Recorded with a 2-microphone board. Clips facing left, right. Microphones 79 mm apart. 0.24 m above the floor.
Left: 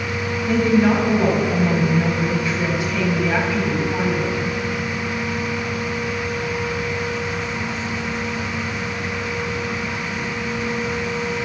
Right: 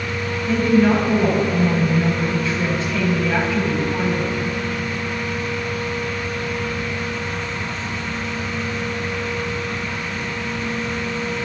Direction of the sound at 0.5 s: 15° left (ahead or behind).